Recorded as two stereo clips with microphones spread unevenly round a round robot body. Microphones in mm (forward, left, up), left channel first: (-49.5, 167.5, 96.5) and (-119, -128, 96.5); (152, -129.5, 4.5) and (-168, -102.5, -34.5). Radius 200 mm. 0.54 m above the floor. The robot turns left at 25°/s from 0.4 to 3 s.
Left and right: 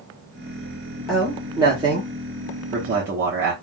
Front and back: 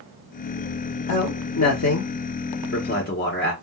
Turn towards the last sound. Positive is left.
turn(degrees=-60)